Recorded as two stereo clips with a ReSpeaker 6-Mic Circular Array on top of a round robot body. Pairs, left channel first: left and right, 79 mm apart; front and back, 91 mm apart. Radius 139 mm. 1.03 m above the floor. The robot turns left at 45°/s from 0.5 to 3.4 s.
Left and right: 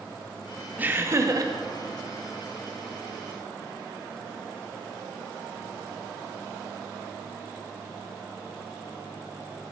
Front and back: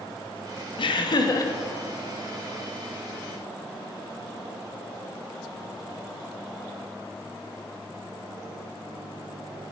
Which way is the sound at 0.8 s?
20° right.